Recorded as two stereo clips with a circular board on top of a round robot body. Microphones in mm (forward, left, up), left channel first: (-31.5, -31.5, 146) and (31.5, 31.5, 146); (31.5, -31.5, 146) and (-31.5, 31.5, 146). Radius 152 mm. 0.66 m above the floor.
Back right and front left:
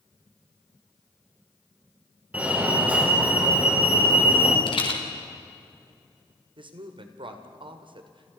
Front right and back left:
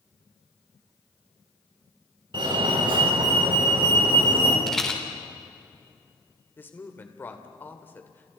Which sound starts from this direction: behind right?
A rattle, at 4.7 s.